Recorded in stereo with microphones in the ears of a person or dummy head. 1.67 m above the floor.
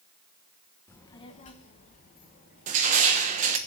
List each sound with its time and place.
0.9 s a child speaking: 10° left (ahead or behind), 0.8 m; by 3.7 s 50° left (ahead or behind), 3.5 m
2.7 s crushing: 40° right (ahead or behind), 1.1 m